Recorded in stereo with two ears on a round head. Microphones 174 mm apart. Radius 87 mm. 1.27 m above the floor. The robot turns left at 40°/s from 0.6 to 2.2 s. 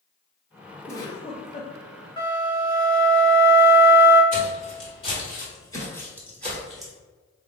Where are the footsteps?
40° left (ahead or behind), 2.0 m; by 6.9 s 5° right (ahead or behind), 1.7 m.